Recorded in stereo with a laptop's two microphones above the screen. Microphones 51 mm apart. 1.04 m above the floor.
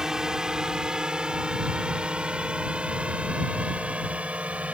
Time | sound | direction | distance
0.0 | a drone | 10° right (ahead or behind) | ?